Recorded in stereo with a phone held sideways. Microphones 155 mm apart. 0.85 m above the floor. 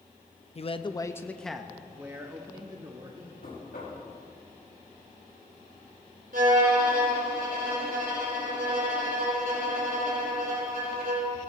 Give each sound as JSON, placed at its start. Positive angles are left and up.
{"t": 0.6, "sound": "a man speaking", "side_deg": 45, "distance_m": 0.6}
{"t": 3.4, "sound": "knocking", "side_deg": 80, "distance_m": 5.5}
{"t": 6.3, "sound": "a violin", "side_deg": -65, "distance_m": 4.5}